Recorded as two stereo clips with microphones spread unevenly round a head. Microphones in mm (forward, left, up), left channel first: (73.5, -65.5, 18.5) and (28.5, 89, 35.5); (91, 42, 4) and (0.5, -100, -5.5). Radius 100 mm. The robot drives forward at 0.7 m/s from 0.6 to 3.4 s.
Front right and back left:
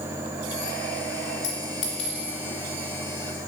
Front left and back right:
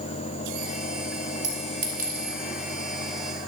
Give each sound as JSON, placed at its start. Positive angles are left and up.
{"t": 1.4, "sound": "a clink", "azimuth_deg": -80, "distance_m": 3.5}